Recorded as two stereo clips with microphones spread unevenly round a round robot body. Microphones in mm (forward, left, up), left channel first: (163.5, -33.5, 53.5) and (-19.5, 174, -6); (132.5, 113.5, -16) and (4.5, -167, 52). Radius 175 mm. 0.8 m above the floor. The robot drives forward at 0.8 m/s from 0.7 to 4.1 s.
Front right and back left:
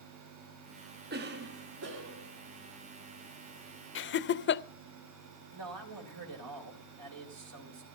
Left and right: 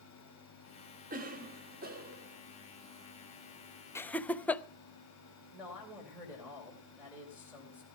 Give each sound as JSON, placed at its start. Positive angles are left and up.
{"t": 1.1, "sound": "a cough", "azimuth_deg": 175, "distance_m": 1.5}
{"t": 4.0, "sound": "laughter", "azimuth_deg": 0, "distance_m": 0.8}
{"t": 5.5, "sound": "a man speaking", "azimuth_deg": 160, "distance_m": 3.5}